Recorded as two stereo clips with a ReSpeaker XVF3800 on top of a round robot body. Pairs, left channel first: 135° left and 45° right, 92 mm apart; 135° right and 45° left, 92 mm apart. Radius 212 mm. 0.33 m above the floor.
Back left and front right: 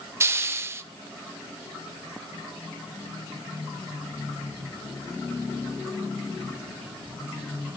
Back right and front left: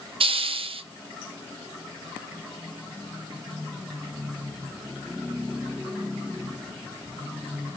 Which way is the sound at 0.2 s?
20° left.